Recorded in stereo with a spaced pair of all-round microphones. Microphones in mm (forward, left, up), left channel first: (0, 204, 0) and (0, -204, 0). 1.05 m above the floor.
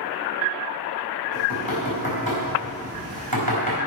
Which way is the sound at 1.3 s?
60° right (ahead or behind).